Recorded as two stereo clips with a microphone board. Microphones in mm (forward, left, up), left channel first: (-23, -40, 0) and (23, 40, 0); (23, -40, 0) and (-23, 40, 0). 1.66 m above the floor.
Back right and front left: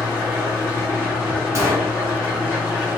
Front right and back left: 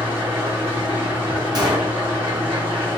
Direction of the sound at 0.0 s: 125° left.